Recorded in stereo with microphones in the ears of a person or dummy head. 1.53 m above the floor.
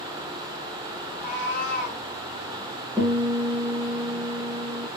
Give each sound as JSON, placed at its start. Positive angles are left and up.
{"t": 1.1, "sound": "a cat meowing", "side_deg": 50, "distance_m": 1.5}
{"t": 3.0, "sound": "a guitar", "side_deg": -15, "distance_m": 0.9}